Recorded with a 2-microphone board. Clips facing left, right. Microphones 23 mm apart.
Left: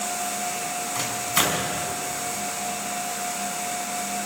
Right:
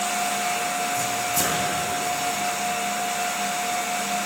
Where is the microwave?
80° left, 4 m.